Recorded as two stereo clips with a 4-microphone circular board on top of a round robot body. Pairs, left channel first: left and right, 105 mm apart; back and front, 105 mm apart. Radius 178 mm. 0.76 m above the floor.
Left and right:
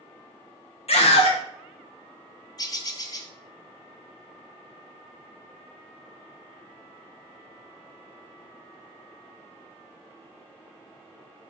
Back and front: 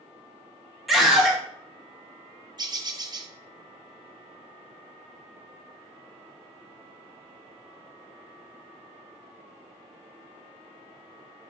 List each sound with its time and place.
0.9 s a scream: 90° left, 1.6 m
2.6 s a bird: 45° left, 0.7 m